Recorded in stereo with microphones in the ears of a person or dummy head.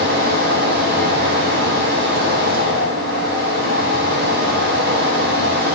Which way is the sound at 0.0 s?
50° right (ahead or behind).